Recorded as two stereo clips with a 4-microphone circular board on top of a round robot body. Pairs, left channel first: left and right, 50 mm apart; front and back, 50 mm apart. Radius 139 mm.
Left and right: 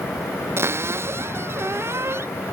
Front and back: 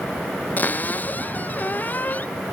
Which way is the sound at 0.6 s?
55° right.